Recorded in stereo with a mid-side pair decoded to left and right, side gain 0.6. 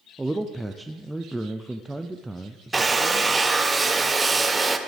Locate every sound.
0.2 s a man speaking: 5° right, 0.6 m
2.7 s a drill: 15° right, 0.9 m